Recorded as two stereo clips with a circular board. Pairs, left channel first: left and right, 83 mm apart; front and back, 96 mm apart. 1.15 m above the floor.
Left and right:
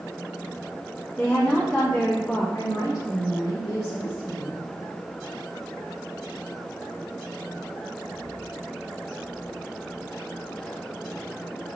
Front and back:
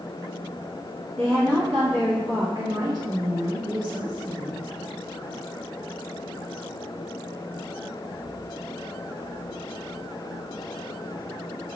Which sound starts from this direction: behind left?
A woman speaking, at 2.5 s.